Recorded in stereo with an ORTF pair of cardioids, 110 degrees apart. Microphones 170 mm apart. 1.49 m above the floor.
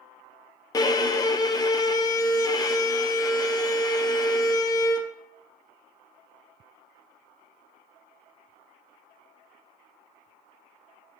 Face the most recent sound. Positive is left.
turn(degrees=25)